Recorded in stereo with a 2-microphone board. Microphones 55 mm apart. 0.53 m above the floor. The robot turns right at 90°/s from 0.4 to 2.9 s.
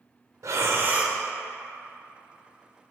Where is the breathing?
75° right, 0.5 m; by 1.2 s 5° right, 0.5 m.